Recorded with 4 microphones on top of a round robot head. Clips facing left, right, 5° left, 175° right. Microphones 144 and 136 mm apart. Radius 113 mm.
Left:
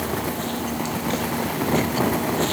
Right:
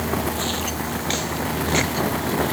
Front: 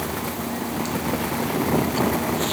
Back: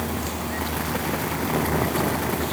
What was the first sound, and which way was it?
Only background noise.